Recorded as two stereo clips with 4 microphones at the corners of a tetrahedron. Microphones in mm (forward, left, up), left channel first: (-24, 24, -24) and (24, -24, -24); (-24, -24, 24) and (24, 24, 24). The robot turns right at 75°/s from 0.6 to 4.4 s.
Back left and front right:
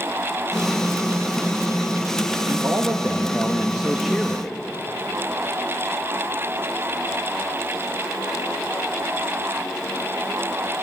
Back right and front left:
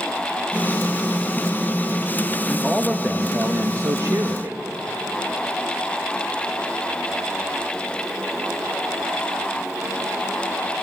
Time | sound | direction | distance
2.5 | a man speaking | 75° right | 1.1 m